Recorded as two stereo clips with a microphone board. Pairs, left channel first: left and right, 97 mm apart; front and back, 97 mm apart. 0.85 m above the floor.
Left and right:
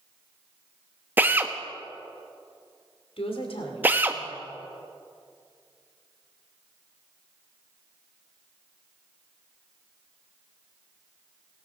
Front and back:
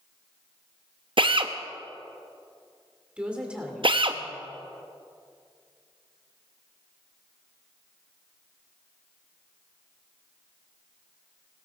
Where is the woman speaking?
100° left, 2.5 m.